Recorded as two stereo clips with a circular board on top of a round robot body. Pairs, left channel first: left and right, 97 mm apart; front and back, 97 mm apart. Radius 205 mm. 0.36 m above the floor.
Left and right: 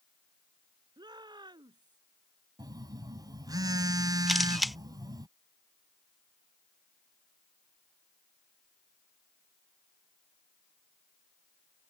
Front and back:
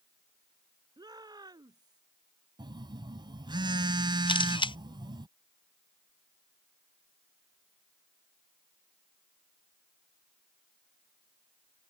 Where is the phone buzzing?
140° right.